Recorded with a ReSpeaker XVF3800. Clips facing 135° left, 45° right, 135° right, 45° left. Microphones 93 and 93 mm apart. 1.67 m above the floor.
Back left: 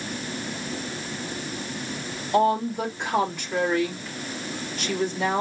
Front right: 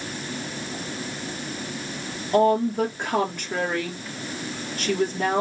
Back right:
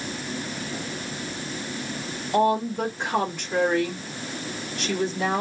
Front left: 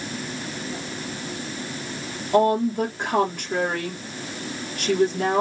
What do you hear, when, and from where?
2.3 s a woman speaking: 5° left, 3.5 m